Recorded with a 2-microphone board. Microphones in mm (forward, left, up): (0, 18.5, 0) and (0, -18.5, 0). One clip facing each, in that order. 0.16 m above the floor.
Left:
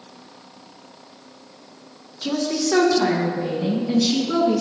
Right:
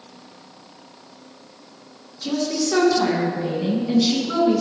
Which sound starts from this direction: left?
A woman speaking, at 2.2 s.